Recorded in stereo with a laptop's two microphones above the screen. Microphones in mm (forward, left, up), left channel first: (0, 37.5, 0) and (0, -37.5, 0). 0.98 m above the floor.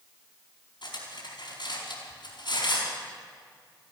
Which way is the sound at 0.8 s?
85° left.